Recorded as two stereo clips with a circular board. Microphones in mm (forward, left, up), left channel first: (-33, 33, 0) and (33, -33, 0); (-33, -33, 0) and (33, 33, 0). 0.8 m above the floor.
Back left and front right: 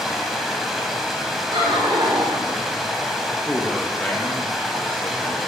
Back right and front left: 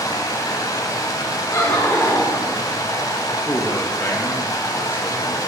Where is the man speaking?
170° right, 0.7 m.